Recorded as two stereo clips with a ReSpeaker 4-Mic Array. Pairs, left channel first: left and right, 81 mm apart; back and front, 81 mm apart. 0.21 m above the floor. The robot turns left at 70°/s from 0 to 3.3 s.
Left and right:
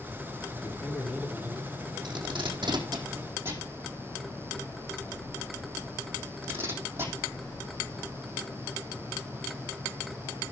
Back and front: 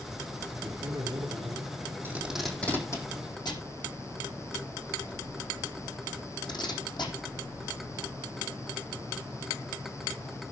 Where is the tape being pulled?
65° right, 4 m; by 7.1 s 150° right, 4 m.